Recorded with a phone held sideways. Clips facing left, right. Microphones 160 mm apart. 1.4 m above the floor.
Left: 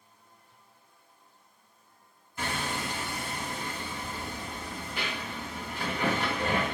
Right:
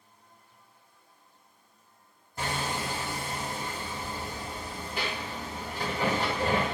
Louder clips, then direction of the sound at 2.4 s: Right 1 dB; 40° right (ahead or behind).